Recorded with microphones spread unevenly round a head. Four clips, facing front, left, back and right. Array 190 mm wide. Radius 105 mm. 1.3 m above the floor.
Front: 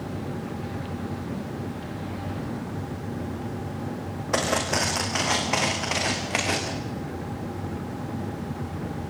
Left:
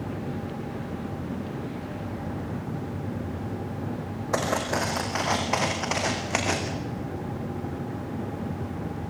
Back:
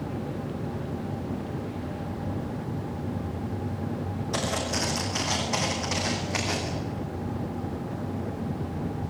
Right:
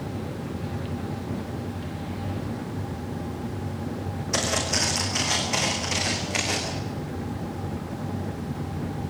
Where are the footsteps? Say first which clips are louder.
Left 2 dB, front 5 dB; 35° left, 4.5 m; by 6.7 s 55° left, 6.5 m.